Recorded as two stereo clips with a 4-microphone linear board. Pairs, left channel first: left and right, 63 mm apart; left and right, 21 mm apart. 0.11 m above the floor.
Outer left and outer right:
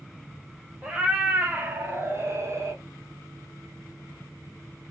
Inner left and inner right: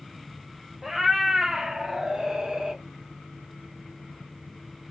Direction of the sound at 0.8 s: 10° right (ahead or behind).